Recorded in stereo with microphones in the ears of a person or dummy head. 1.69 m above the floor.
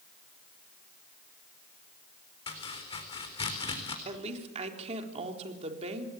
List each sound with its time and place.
2.5 s chopping: 25° left (ahead or behind), 4 m
4.0 s a woman speaking: 35° right (ahead or behind), 4 m